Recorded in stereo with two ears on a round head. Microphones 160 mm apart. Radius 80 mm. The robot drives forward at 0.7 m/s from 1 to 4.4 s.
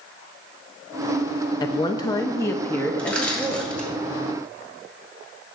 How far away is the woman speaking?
About 0.5 m.